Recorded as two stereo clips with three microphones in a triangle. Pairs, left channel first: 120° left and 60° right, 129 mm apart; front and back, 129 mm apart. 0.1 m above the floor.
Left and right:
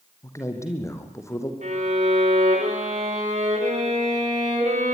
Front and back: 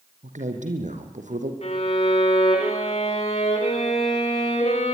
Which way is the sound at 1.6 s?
35° right.